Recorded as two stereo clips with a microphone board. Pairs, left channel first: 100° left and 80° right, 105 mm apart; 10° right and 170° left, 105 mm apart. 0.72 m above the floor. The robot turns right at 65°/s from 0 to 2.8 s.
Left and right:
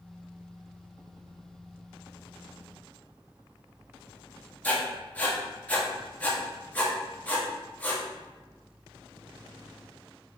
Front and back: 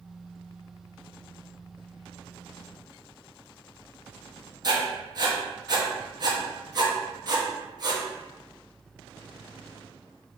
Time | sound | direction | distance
4.6 | writing | 165° left | 0.8 m